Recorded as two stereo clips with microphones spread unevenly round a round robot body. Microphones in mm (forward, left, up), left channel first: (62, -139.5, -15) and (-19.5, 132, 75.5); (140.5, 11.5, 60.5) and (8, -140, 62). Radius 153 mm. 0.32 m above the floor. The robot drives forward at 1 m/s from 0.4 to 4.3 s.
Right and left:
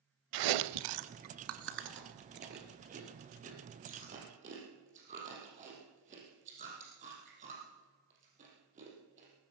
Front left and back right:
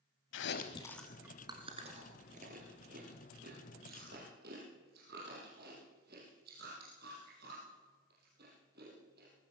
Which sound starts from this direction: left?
Chewing, at 0.3 s.